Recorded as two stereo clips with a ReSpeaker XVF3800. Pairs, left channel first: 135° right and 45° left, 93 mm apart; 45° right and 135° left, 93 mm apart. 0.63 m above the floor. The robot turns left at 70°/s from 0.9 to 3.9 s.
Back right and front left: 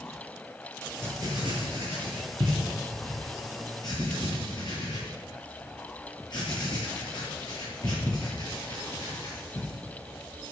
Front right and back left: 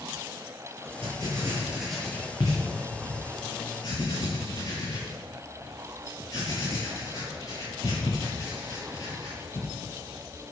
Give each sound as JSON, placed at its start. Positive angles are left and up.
{"t": 1.0, "sound": "writing", "azimuth_deg": 105, "distance_m": 10.0}